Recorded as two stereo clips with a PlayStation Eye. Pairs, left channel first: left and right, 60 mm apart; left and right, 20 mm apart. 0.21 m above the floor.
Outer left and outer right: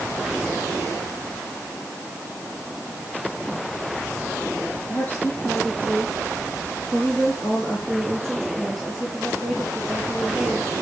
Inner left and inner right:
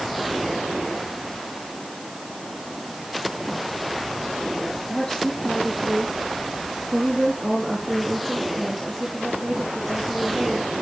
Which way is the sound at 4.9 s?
35° left (ahead or behind).